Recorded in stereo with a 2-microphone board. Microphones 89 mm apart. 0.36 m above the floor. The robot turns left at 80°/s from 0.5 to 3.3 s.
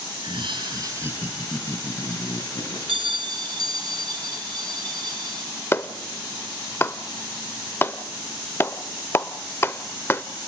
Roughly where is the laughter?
Right.